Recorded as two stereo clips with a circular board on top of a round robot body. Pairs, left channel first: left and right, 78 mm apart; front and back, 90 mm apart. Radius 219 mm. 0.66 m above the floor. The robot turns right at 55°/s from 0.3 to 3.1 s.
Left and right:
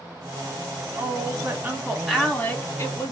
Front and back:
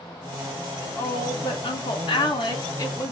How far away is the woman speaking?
About 1.8 m.